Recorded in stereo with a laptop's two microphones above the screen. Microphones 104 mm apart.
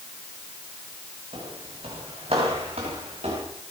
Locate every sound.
1.3 s footsteps: 70° right (ahead or behind), 5.5 m; by 3.4 s 80° right, 5 m